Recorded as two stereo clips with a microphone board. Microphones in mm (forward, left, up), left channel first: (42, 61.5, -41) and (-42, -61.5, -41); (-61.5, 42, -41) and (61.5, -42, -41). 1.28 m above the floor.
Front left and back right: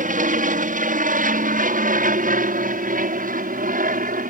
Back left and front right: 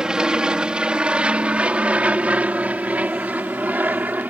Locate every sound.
0.0 s an aircraft: 120° right; by 4.3 s 110° right